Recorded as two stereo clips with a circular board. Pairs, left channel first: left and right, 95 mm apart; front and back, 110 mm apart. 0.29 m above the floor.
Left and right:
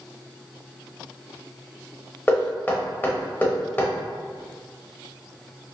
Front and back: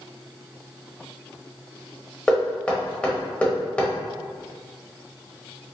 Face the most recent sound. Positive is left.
turn(degrees=65)